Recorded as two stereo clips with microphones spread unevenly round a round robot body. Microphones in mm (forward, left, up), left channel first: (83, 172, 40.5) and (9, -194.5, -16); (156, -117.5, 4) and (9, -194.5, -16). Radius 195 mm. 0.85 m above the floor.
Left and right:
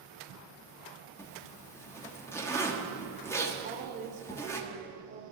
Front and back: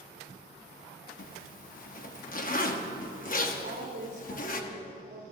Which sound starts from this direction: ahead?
A zipper, at 1.2 s.